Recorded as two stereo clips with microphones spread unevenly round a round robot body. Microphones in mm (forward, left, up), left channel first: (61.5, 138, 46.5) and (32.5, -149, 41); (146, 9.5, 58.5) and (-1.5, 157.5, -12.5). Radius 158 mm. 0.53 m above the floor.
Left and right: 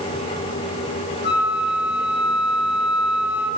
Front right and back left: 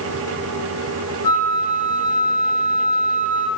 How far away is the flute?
About 0.9 m.